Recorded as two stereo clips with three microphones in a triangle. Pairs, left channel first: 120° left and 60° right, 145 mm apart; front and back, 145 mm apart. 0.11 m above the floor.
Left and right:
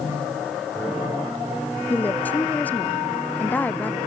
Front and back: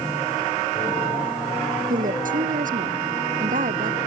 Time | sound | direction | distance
1.9 | a woman speaking | 160° right | ?